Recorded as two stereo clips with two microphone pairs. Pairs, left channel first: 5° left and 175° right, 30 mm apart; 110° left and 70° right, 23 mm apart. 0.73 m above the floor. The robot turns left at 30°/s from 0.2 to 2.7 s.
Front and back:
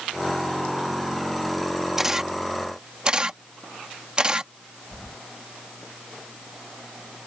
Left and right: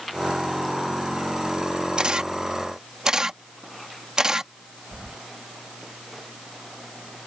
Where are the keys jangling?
45° right.